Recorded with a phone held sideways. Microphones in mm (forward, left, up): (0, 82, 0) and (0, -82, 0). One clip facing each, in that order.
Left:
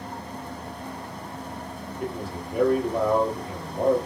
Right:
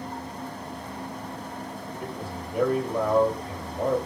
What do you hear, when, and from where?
2.0 s a man speaking: 65° left (ahead or behind), 2.5 m